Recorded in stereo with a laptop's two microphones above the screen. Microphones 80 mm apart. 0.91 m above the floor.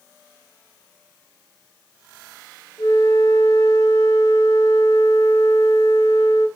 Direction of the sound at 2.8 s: 55° left (ahead or behind).